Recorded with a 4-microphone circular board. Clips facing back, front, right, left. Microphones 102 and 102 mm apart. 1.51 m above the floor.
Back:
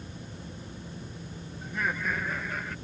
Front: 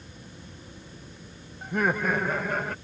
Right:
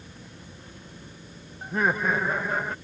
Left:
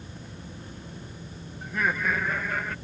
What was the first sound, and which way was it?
Laughter, 35° right.